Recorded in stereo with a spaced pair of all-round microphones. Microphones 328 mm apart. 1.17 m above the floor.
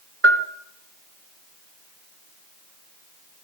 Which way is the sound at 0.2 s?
45° right (ahead or behind).